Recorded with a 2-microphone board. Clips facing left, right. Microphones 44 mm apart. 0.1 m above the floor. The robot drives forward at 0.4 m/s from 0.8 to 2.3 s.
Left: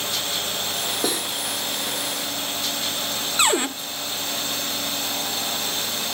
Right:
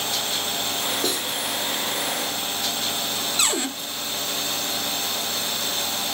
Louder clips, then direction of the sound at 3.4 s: Left 6 dB; 25° left (ahead or behind).